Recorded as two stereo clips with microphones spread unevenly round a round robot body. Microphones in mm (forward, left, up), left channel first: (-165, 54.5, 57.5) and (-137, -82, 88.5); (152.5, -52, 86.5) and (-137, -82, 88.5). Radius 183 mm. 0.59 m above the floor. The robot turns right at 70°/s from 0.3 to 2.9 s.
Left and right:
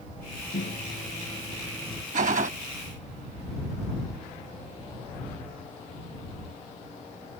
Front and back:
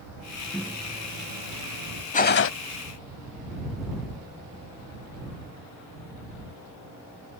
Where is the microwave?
95° left; by 2.0 s 160° right.